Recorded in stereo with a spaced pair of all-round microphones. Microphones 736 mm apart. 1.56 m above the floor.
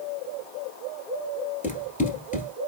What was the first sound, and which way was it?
Running footsteps, 10° left (ahead or behind).